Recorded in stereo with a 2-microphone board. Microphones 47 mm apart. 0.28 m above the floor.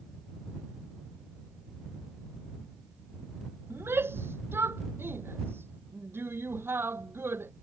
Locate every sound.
3.7 s a shout: 55° right (ahead or behind)